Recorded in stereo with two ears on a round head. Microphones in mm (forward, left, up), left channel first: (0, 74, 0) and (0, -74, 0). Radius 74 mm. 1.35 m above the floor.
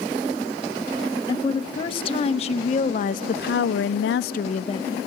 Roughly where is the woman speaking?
Left.